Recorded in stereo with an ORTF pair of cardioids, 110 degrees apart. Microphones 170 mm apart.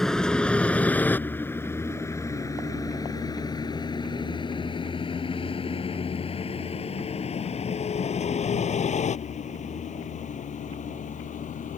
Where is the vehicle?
5° left; by 11.8 s 45° left.